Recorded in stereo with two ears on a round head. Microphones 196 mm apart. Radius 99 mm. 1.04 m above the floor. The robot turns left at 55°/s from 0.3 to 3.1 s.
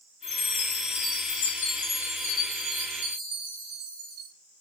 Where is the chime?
115° left, 3 m; by 4.3 s 40° right, 3 m.